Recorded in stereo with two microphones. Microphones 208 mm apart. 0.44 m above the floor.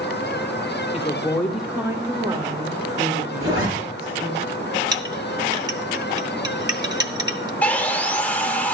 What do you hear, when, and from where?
0.9 s a woman speaking: 30° left (ahead or behind), 0.9 m; by 4.4 s 60° right (ahead or behind), 2 m
3.4 s a zipper: 85° right, 5 m
4.9 s a clink: 20° right (ahead or behind), 0.9 m
7.6 s sawing: 5° left (ahead or behind), 0.7 m